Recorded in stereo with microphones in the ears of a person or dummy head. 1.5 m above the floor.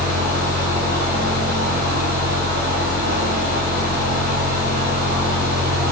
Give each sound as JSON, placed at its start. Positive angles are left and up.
{"t": 0.0, "sound": "a fan", "side_deg": -65, "distance_m": 3.5}